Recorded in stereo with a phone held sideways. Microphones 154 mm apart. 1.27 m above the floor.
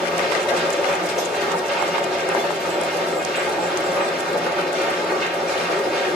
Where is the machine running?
5° right (ahead or behind), 1.9 m.